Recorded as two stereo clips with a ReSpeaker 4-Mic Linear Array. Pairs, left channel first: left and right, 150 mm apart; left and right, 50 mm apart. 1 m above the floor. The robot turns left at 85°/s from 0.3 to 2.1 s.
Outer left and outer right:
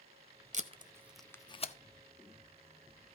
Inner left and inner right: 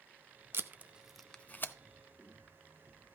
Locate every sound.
0.5 s tape being pulled: 55° right (ahead or behind), 0.6 m; by 1.7 s 50° left (ahead or behind), 0.6 m